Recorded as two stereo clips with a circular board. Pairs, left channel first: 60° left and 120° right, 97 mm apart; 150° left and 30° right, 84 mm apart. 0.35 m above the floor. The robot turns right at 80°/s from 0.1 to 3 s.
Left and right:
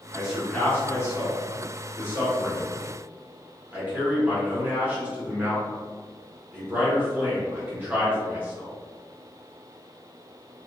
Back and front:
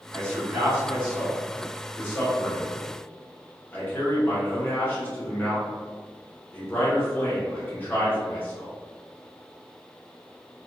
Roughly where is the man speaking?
Ahead right.